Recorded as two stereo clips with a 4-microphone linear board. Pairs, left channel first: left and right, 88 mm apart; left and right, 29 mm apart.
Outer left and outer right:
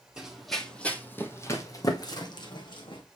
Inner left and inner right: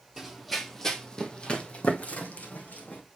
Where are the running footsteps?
10° right (ahead or behind), 1.4 m; by 3.0 s 65° left (ahead or behind), 2.0 m.